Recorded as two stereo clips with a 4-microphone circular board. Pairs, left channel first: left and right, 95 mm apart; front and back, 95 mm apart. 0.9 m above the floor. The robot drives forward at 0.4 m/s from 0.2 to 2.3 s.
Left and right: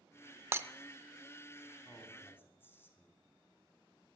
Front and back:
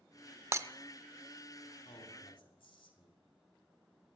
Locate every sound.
0.5 s breaking glass: 135° right, 0.6 m; by 0.7 s 145° right, 0.6 m
1.9 s a man speaking: 20° left, 3 m; by 3.2 s 25° left, 3 m